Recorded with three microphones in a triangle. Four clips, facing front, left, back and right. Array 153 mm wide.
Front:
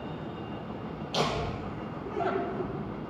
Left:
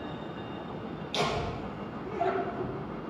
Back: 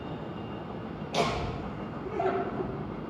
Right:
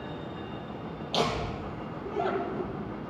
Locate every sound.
1.1 s laughter: 130° right, 4 m; by 2.7 s 135° right, 4.5 m